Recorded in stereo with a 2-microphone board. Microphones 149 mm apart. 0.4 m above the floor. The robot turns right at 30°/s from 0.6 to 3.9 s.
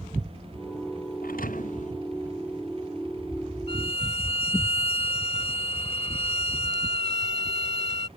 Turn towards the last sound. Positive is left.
turn(degrees=40)  # may be behind; listen again after turning